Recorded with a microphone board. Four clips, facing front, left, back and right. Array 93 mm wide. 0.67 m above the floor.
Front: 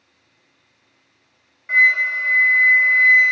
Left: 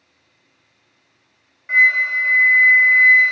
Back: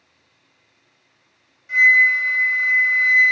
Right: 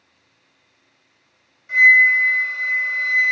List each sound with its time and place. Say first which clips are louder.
1.7 s a flute: right 3 dB, back 2 dB; 45° left, 0.7 m